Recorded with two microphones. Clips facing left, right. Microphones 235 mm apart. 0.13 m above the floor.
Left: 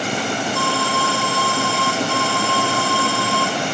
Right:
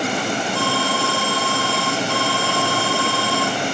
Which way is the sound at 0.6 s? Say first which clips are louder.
Even; 35° right (ahead or behind).